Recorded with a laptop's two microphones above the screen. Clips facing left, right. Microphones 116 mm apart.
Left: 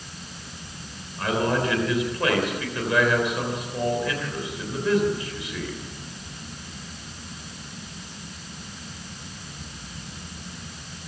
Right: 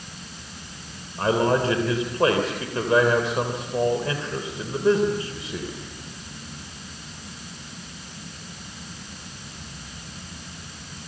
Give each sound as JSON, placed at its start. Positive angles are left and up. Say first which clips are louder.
{"t": 1.2, "sound": "a man speaking", "louder": "right 3 dB", "side_deg": -35, "distance_m": 3.0}